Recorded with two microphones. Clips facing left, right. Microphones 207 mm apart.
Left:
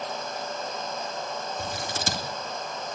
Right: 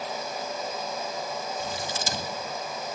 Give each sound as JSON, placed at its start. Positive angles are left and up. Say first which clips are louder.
{"t": 1.6, "sound": "scissors", "louder": "even", "side_deg": 60, "distance_m": 3.0}